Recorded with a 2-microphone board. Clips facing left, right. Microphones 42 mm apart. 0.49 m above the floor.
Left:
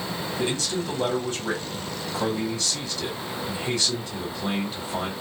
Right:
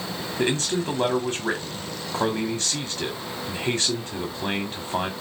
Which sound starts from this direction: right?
A man speaking, at 0.4 s.